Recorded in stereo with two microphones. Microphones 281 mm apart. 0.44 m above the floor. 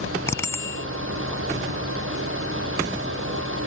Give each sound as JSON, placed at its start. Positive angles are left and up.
{"t": 0.3, "sound": "a bicycle bell", "side_deg": 10}